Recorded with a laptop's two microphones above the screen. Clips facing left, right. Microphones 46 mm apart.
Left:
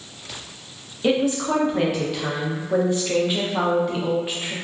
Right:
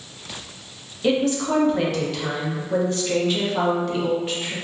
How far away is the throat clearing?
No throat clearing in this recording.